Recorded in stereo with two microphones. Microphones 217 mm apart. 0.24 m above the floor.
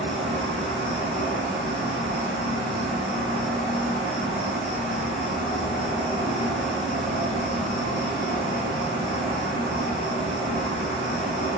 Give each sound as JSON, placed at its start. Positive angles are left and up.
{"t": 0.0, "sound": "an insect", "side_deg": -50, "distance_m": 1.2}